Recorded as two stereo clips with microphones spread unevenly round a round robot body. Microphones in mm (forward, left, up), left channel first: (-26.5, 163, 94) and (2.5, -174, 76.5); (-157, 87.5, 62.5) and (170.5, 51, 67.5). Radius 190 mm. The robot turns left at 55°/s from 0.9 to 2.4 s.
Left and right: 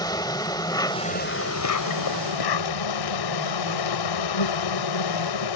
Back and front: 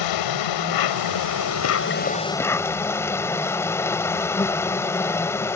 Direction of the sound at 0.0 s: 175° left.